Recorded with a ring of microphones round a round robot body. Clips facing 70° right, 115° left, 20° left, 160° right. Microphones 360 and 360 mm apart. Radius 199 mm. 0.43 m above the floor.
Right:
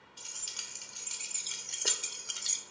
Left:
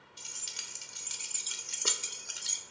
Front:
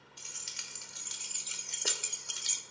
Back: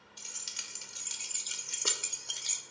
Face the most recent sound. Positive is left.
turn(degrees=-5)